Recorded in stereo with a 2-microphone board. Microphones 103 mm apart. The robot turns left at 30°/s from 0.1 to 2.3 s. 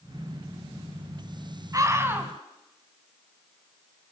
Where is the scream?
30° right (ahead or behind), 4 m; by 2.3 s 15° right (ahead or behind), 4 m.